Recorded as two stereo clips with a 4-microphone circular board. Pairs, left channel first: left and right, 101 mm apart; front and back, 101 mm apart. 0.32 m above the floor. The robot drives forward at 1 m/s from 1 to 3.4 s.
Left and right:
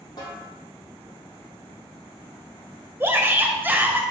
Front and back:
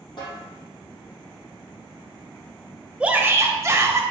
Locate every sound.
0.2 s a snare drum: 45° left, 3.5 m
3.0 s a shout: 115° right, 1.1 m; by 4.0 s 145° right, 1.2 m